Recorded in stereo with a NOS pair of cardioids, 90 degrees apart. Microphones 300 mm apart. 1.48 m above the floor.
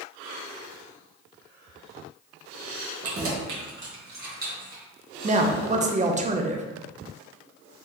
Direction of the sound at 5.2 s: 25° right.